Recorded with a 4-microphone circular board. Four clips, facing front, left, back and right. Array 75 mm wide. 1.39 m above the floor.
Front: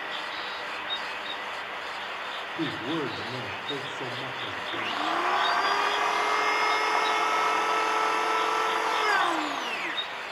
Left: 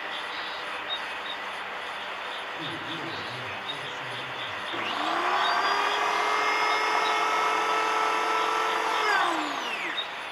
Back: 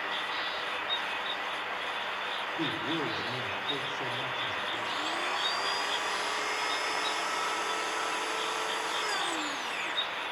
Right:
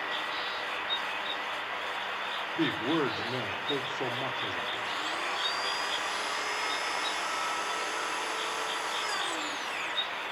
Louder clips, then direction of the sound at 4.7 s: Left 5 dB, front 5 dB; 45° left.